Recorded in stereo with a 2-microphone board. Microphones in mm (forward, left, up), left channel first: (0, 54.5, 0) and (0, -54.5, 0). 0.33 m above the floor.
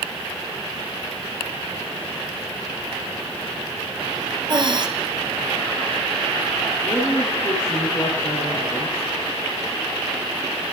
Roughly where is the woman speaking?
Left.